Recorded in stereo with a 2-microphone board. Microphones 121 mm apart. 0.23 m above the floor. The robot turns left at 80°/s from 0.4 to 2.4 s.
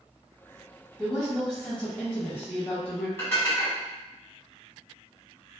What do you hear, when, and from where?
1.0 s a woman speaking: 5° right (ahead or behind), 1.0 m; by 3.1 s 20° left (ahead or behind), 1.0 m
3.2 s dishes clattering: 20° left (ahead or behind), 1.3 m